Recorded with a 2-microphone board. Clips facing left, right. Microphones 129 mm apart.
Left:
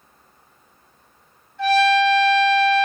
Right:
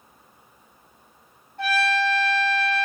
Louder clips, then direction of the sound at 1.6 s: Left 7 dB; 60° right (ahead or behind).